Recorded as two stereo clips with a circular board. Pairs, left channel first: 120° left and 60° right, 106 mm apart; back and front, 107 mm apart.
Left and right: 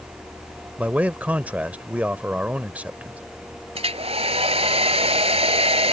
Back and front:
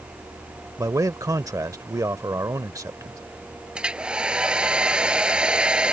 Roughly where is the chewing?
I don't hear chewing.